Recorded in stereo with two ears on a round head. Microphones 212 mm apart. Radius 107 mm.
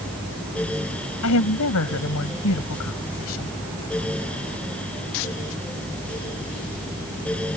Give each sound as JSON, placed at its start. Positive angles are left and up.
{"t": 1.2, "sound": "a woman speaking", "side_deg": 70}